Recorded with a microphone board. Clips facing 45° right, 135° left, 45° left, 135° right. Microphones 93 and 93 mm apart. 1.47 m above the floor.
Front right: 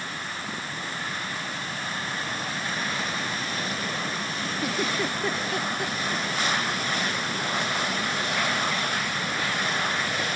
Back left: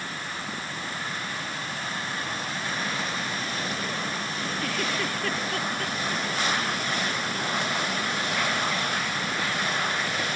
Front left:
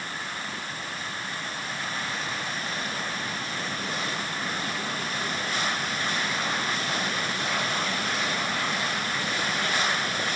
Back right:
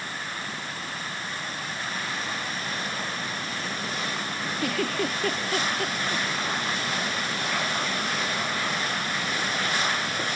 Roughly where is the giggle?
Behind right.